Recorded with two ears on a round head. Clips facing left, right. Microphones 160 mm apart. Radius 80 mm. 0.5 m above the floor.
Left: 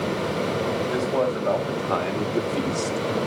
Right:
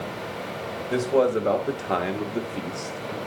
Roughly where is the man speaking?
Right.